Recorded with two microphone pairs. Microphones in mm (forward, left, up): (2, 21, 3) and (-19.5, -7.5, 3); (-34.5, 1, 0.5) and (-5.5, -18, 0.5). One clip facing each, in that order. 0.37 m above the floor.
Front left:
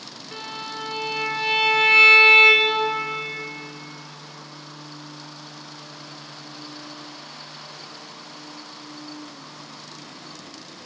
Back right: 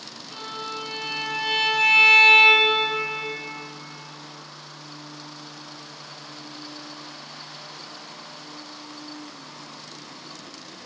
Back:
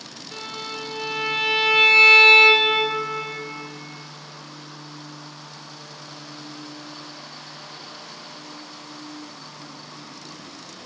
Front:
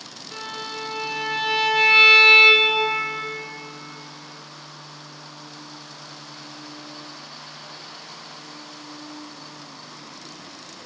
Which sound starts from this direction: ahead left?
A violin, at 0.3 s.